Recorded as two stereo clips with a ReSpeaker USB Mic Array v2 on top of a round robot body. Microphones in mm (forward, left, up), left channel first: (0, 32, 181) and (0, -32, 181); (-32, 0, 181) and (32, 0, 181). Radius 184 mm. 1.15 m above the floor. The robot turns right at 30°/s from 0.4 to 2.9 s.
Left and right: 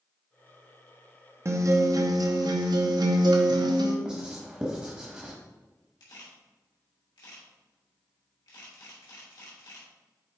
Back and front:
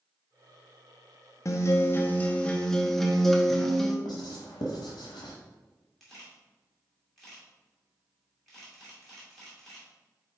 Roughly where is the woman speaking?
No woman speaking in this recording.